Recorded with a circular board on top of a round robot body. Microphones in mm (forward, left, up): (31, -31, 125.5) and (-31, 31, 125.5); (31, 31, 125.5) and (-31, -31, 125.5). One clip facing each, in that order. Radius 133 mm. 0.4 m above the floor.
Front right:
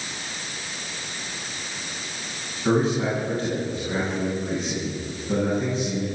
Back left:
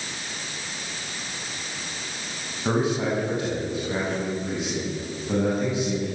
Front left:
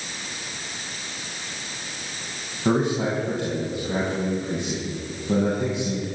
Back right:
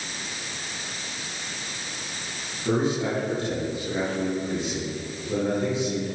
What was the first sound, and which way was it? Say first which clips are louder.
A man speaking: front right 2 dB, front left 2 dB; 60° left.